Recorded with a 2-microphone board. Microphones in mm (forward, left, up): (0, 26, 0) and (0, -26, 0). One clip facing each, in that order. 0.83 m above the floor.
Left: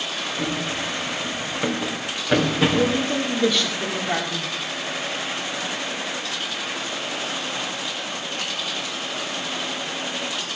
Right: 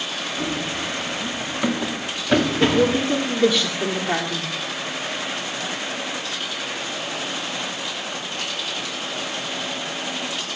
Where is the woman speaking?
5° right (ahead or behind), 2 m.